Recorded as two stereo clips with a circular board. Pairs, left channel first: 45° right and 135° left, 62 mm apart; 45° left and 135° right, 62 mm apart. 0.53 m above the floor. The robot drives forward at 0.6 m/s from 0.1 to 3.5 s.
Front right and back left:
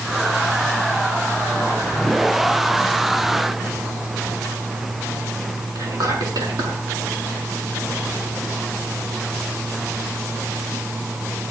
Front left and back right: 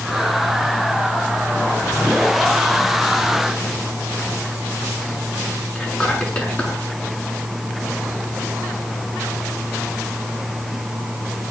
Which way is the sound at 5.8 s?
115° left.